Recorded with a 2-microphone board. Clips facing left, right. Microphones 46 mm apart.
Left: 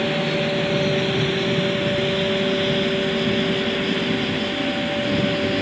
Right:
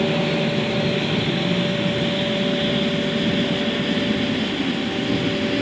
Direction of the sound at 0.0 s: 10° right (ahead or behind).